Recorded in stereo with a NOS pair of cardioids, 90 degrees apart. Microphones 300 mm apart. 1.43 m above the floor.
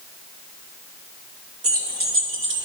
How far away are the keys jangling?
About 2.5 m.